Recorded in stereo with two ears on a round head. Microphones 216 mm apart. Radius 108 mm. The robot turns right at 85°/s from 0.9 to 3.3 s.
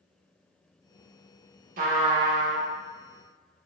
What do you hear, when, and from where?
1.8 s a trumpet: 60° right, 0.5 m; by 2.6 s 15° left, 0.5 m